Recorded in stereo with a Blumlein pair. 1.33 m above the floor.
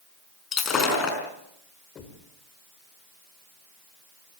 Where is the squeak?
I don't hear a squeak.